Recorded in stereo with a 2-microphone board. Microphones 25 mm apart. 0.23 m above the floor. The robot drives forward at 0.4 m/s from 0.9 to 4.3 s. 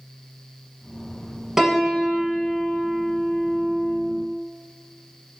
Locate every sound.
1.6 s a piano: 15° right (ahead or behind), 0.6 m; by 4.1 s 5° right (ahead or behind), 1.6 m